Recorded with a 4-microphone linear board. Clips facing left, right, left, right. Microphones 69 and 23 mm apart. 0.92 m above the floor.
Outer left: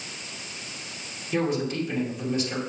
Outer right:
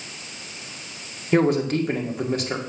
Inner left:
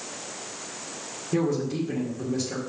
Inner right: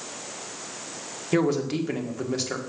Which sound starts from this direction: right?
A man speaking, at 1.3 s.